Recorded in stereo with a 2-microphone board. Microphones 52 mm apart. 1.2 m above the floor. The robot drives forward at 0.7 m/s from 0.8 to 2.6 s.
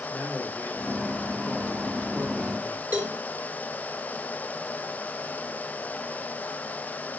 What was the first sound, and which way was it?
A man speaking, 45° left (ahead or behind).